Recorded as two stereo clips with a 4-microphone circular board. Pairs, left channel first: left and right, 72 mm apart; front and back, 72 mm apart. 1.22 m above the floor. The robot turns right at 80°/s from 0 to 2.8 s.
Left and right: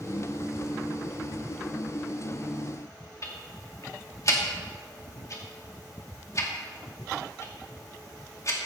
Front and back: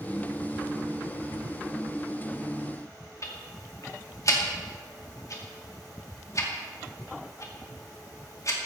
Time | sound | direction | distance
3.2 | ticking | 45° left | 2 m